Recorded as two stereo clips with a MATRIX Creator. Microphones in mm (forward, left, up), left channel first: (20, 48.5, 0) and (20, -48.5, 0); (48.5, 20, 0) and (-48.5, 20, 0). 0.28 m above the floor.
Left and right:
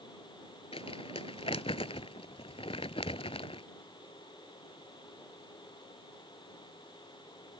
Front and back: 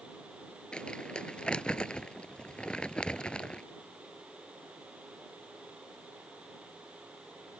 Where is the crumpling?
80° left.